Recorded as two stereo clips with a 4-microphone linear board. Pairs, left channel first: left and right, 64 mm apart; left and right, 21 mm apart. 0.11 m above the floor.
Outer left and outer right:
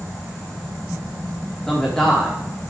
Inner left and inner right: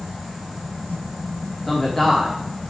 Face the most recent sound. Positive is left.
turn(degrees=5)  # may be behind; listen again after turning